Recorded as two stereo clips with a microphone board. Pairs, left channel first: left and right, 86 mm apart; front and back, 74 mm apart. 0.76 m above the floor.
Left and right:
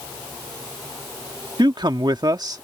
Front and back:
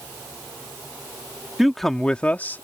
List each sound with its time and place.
1.6 s a man speaking: 95° right; by 2.6 s 55° right